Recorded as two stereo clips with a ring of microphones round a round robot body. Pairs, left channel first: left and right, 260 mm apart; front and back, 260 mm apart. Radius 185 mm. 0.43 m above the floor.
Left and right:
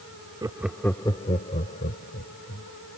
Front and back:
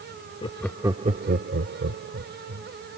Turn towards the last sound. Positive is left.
turn(degrees=150)